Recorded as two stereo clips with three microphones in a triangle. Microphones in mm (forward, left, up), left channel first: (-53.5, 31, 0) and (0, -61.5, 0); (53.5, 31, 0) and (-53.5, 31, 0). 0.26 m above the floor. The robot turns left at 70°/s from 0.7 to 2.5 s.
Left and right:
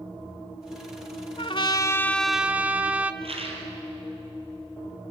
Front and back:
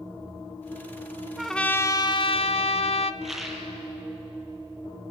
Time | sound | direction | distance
1.4 | a trumpet | 95° left | 0.8 m
3.2 | a rattle | 90° right | 4 m